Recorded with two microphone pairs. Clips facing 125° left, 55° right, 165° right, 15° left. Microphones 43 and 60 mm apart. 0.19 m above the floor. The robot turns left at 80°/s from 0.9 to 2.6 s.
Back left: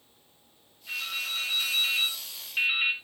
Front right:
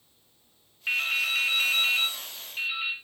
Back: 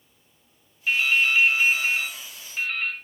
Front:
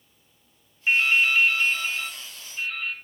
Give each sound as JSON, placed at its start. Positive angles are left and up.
{"t": 0.9, "sound": "dripping", "azimuth_deg": -45, "distance_m": 1.6}